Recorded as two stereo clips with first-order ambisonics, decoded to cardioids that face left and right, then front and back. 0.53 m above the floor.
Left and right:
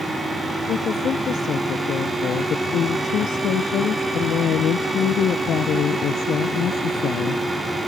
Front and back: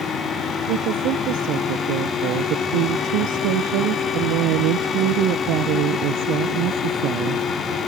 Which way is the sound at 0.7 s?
150° left.